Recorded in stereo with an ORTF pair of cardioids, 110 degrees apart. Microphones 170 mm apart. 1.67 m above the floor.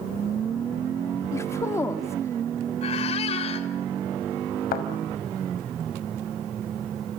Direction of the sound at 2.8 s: 40° left.